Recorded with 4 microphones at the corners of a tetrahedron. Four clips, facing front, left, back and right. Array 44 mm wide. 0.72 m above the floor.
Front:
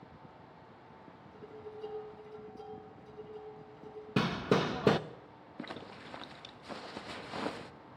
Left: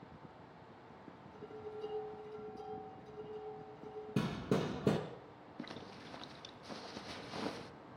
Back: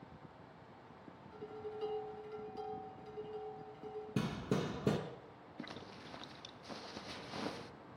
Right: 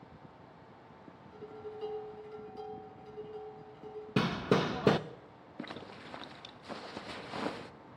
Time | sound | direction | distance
1.3 | dishes clattering | 140° right | 7 m
4.2 | hammering | 40° right | 0.6 m
5.6 | a zipper | 45° right | 0.5 m